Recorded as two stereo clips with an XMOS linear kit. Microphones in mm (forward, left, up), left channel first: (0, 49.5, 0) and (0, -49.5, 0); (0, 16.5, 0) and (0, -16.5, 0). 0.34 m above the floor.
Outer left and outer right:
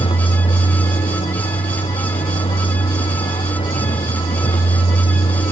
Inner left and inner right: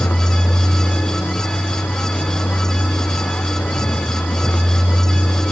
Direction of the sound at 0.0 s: 70° left (ahead or behind).